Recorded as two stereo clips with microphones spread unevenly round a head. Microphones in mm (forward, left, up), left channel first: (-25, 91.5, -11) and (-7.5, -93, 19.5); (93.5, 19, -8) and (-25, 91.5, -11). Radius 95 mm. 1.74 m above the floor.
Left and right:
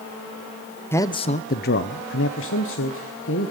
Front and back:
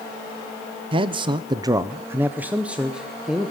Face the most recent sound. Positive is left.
turn(degrees=60)